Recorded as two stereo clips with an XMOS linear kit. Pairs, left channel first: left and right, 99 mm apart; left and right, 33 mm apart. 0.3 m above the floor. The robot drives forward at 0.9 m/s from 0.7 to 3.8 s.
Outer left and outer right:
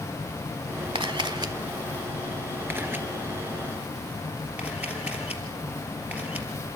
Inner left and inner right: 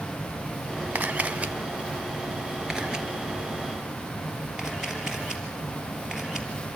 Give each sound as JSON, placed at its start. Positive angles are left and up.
{"t": 0.9, "sound": "a camera shutter", "side_deg": -60, "distance_m": 0.9}